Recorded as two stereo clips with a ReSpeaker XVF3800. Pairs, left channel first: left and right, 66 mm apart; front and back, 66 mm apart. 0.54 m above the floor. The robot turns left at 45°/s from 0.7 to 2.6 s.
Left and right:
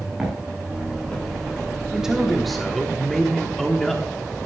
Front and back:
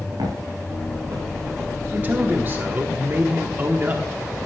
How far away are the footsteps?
About 6 m.